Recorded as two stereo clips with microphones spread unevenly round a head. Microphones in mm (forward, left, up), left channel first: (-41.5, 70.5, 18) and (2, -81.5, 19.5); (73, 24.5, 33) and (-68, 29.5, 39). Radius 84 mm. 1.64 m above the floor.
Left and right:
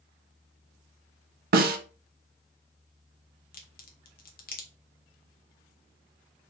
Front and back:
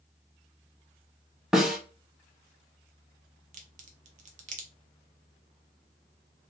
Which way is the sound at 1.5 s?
95° right.